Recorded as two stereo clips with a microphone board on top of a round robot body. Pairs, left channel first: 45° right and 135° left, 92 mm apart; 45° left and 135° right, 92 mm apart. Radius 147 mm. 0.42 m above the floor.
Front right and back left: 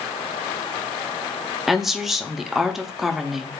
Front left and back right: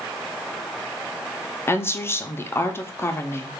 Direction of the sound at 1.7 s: 50° left.